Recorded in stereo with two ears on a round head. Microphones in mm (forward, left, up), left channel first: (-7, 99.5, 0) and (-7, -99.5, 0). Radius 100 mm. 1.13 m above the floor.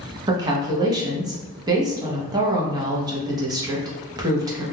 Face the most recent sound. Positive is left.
turn(degrees=-20)  # may be behind; listen again after turning